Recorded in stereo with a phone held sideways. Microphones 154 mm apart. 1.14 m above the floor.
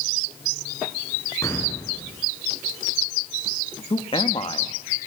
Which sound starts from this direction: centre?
An explosion, at 1.4 s.